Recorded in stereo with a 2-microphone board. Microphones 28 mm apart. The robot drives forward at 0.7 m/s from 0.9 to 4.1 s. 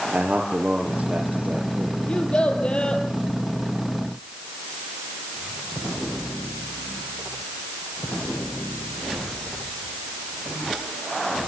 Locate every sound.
0.1 s a man speaking: 75° right (ahead or behind), 5 m; by 2.0 s 70° right (ahead or behind), 5.5 m
2.1 s a child speaking: 45° left (ahead or behind), 5 m; by 3.0 s 40° left (ahead or behind), 5.5 m